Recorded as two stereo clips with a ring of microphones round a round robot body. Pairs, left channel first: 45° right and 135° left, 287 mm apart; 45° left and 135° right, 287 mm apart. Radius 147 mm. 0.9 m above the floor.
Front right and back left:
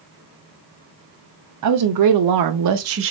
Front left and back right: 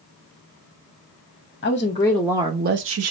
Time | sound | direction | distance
1.6 | a woman speaking | 105° left | 0.8 m